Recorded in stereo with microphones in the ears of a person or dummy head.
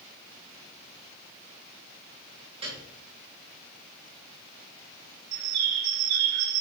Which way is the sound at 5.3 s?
80° right.